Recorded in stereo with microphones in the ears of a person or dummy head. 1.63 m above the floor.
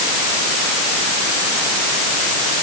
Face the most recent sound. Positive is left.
No sound to turn to.